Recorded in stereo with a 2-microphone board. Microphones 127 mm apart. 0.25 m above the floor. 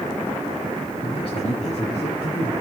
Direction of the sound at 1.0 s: 50° left (ahead or behind).